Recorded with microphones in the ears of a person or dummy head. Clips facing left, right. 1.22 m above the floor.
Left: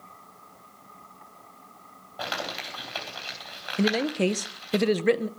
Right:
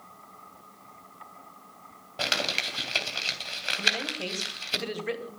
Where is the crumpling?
35° right (ahead or behind), 3.5 m.